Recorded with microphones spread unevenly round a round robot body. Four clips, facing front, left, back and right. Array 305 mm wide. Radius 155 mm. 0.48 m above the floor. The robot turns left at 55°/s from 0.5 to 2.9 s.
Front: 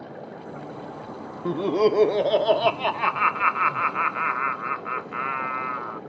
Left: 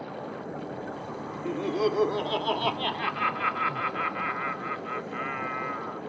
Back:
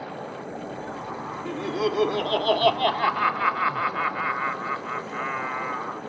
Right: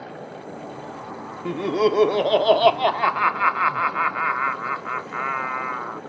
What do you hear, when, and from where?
1.4 s laughter: 35° right; by 6.0 s 110° right